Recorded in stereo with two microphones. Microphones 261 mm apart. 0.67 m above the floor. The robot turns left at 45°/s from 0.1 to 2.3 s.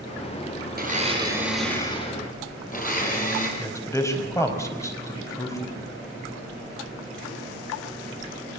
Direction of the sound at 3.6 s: 10° left (ahead or behind).